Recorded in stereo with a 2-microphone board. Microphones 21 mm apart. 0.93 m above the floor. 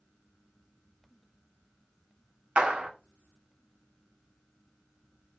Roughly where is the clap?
Right.